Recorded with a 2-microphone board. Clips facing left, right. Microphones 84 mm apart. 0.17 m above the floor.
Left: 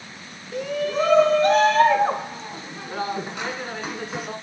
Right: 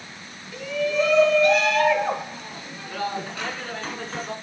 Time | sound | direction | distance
0.5 | a shout | 50° left (ahead or behind) | 1.8 m